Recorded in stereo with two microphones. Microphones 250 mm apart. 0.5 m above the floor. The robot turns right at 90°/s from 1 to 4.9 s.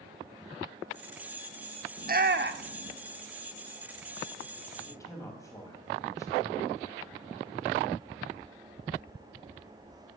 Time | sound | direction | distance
2.0 | a shout | 30° right (ahead or behind) | 0.9 m
4.9 | a man speaking | 15° left (ahead or behind) | 3.5 m